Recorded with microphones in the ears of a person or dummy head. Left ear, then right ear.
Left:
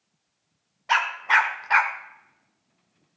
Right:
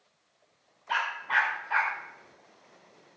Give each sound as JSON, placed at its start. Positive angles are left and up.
{"t": 0.9, "sound": "a dog barking", "side_deg": 70, "distance_m": 1.8}